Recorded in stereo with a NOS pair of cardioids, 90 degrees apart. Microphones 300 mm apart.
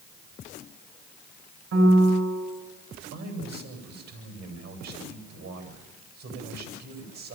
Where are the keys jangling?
No keys jangling in this recording.